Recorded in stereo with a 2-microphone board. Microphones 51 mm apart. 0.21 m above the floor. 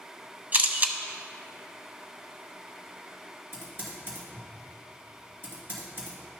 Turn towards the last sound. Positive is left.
turn(degrees=-45)  # may be behind; listen again after turning